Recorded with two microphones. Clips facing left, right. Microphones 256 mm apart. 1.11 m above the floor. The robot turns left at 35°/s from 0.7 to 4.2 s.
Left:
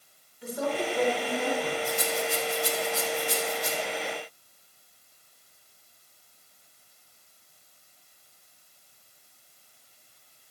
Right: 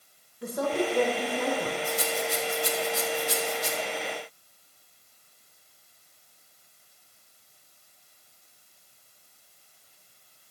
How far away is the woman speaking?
About 1.4 m.